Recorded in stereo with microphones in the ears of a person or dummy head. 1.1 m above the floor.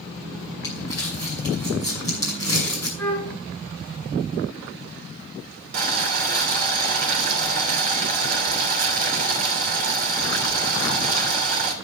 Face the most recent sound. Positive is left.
turn(degrees=-45)  # may be behind; listen again after turning